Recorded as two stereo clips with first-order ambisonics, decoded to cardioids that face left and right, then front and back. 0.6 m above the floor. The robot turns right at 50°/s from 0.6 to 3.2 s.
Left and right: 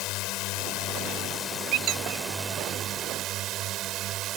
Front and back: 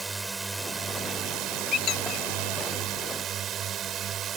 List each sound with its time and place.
0.0 s a drone: 105° left; by 4.4 s 125° right
1.7 s a squeak: 60° right; by 2.3 s 30° right